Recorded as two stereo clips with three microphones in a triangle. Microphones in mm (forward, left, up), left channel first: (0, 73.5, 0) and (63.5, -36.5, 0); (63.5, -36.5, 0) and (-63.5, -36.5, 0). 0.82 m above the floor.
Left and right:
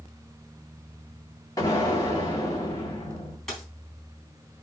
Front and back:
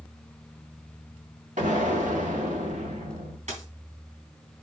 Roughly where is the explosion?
Behind.